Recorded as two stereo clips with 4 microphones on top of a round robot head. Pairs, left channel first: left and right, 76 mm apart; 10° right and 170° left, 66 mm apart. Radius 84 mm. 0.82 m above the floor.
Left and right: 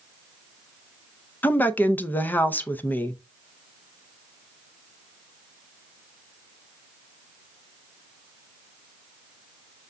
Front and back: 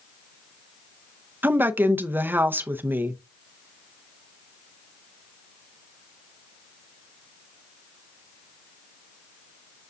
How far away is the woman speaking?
About 0.6 m.